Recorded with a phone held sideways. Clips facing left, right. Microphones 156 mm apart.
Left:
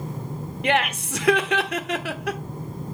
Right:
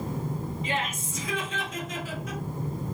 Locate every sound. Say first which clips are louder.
0.6 s laughter: left 12 dB; 70° left (ahead or behind), 1.0 m